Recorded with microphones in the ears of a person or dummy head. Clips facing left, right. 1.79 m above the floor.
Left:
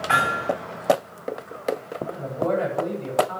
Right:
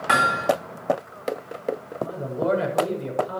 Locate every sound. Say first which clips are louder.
0.1 s hammering: right 4 dB; 65° right (ahead or behind), 5 m
2.0 s a man speaking: right 1 dB; 40° right (ahead or behind), 8.5 m